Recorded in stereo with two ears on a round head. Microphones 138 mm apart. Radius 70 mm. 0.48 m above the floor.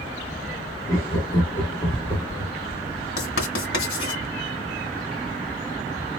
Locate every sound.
0.9 s laughter: 25° left (ahead or behind), 0.8 m
3.2 s writing: 70° left (ahead or behind), 2 m